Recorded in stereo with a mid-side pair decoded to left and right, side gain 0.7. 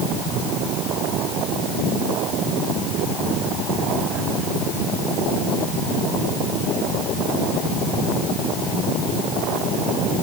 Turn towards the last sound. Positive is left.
No sound to turn to.